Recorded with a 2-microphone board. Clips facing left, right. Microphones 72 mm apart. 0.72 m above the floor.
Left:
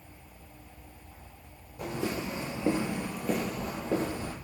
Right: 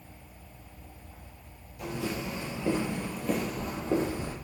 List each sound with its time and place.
1.8 s footsteps: 40° left (ahead or behind), 0.9 m; by 4.3 s 10° right (ahead or behind), 1.5 m